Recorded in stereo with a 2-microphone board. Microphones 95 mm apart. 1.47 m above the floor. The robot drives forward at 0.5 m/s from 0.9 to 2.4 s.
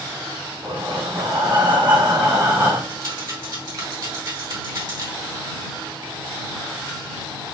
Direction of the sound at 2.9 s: 50° right (ahead or behind).